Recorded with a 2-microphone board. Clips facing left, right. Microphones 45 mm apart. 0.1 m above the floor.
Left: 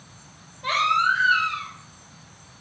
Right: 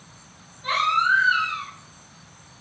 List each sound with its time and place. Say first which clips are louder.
0.6 s a baby crying: even; 55° left (ahead or behind), 1.9 m